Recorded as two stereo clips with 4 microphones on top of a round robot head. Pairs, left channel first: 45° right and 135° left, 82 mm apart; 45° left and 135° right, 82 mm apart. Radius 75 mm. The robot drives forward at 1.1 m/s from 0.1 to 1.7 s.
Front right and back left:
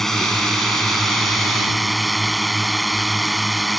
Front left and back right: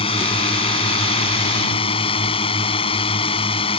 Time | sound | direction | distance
0.0 | a drone | 45° left | ?